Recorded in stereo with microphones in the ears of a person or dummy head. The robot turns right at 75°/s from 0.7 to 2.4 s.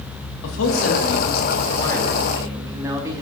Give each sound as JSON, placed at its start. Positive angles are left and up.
{"t": 0.4, "sound": "a man speaking", "azimuth_deg": 75, "distance_m": 2.0}